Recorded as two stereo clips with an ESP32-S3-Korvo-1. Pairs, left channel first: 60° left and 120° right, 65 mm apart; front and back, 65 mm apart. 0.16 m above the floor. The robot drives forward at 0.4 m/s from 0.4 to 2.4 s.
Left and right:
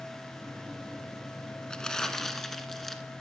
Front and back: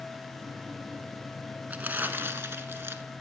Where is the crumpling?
130° left, 0.9 m; by 3.0 s 145° left, 1.1 m.